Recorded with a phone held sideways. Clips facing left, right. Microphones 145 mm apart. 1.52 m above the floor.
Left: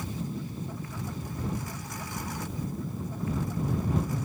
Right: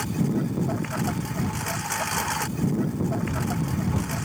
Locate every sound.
0.0 s a lawn mower: 85° right